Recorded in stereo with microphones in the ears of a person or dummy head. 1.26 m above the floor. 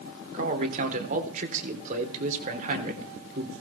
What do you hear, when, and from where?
0.3 s a man speaking: 40° right (ahead or behind), 3.5 m